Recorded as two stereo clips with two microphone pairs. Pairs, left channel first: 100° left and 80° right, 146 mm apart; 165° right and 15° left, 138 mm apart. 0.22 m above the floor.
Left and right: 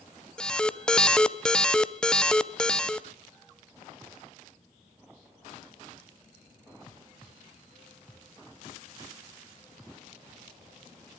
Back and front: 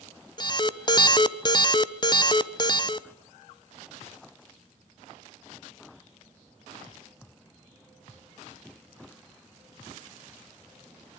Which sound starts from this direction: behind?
An alarm, at 0.4 s.